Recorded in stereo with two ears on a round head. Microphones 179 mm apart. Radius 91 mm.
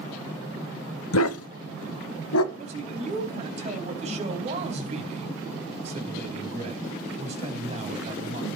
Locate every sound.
1.1 s a dog barking: 75° left (ahead or behind), 1.0 m; by 2.4 s 85° left, 1.7 m
2.5 s a man speaking: 35° right (ahead or behind), 4 m